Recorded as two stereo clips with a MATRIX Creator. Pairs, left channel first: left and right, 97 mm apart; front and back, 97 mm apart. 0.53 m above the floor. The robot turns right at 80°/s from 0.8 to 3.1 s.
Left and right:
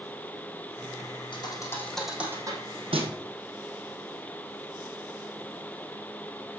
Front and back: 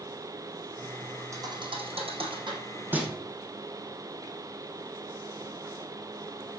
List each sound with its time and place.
1.3 s a thud: 120° left, 2.5 m; by 3.2 s 95° right, 2.5 m